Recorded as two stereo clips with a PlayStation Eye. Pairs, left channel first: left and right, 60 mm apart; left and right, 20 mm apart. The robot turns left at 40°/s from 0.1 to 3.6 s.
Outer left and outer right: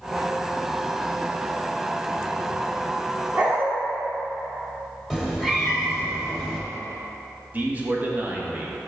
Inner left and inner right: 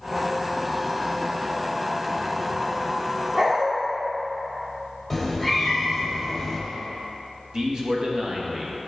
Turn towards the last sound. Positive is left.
turn(degrees=-30)  # may be behind; listen again after turning